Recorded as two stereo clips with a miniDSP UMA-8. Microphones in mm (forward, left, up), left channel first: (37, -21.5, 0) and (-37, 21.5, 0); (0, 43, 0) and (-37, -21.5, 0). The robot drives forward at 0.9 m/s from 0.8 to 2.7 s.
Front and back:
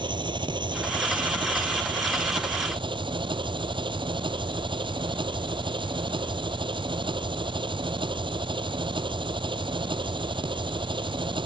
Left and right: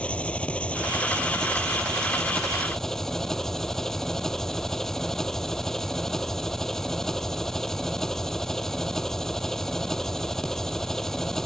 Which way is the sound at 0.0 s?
135° left.